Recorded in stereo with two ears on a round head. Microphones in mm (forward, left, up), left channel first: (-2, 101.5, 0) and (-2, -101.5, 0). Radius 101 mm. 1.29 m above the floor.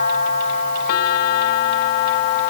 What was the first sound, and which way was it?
Only background noise.